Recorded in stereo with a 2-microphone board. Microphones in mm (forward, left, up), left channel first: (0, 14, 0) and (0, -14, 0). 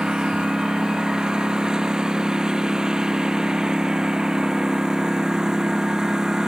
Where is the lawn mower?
25° right (ahead or behind); by 6.5 s 20° right (ahead or behind).